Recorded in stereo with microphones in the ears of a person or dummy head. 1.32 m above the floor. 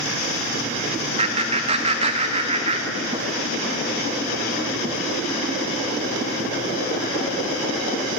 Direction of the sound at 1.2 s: 35° right (ahead or behind).